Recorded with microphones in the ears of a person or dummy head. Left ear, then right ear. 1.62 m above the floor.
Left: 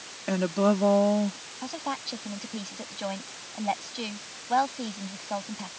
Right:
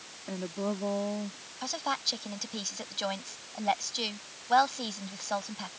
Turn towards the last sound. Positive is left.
turn(degrees=-50)  # may be behind; listen again after turning